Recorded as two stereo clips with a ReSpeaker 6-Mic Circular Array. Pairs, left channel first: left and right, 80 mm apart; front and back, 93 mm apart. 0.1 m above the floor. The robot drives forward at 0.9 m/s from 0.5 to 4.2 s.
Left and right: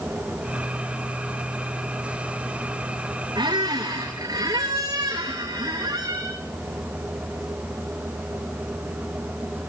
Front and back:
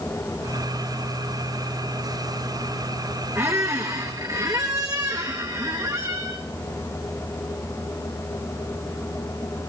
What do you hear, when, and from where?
3.4 s a squeak: 120° right, 3.5 m; by 6.4 s 130° right, 4 m